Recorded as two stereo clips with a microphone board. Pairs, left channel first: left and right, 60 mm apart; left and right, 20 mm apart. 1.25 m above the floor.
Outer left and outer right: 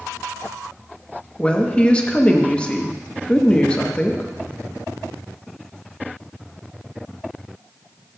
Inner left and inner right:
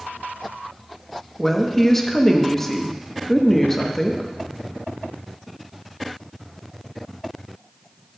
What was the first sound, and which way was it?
A woman speaking, 20° left (ahead or behind).